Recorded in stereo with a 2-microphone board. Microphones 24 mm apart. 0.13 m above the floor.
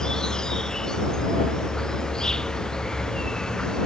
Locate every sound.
0.0 s an insect: 30° left (ahead or behind)